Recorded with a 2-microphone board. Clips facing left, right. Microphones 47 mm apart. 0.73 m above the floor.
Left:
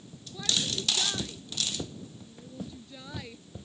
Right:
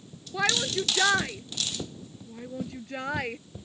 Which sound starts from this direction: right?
A shout, at 0.3 s.